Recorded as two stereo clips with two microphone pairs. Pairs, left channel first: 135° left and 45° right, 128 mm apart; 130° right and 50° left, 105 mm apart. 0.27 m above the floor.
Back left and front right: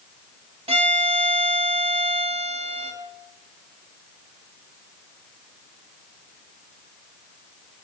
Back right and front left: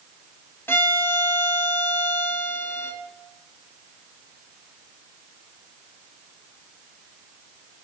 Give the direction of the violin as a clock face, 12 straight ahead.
2 o'clock.